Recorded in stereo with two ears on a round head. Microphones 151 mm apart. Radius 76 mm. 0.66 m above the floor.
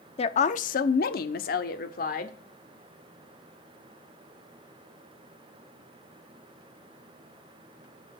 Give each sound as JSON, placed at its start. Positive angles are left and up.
{"t": 0.2, "sound": "a woman speaking", "side_deg": 35, "distance_m": 0.9}